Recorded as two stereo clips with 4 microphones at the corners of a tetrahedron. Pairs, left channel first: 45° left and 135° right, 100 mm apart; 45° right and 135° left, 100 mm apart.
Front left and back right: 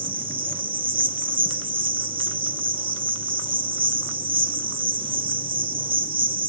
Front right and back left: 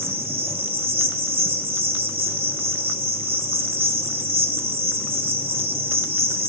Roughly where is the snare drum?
No snare drum in this recording.